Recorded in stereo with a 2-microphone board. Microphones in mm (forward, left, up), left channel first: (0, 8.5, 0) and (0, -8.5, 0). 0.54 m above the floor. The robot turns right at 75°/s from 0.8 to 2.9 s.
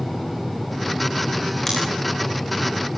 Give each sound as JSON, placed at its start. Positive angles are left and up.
{"t": 1.7, "sound": "scissors", "side_deg": 30, "distance_m": 10.0}